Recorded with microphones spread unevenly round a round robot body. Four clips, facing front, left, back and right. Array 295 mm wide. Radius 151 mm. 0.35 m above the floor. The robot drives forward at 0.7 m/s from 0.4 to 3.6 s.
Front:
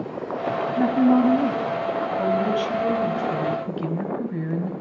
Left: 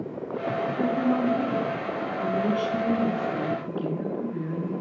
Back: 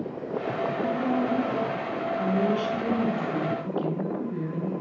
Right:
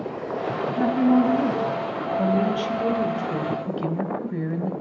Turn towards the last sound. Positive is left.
turn(degrees=-90)